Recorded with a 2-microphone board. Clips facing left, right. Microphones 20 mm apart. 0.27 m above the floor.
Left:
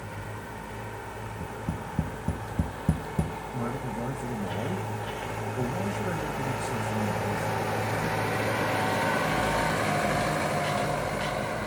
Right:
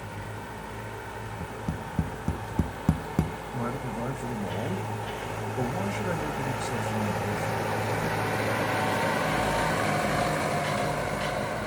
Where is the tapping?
50° right (ahead or behind), 1.3 m.